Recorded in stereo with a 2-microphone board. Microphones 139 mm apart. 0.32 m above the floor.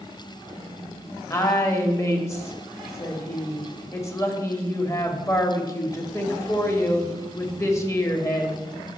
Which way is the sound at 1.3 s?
20° left (ahead or behind).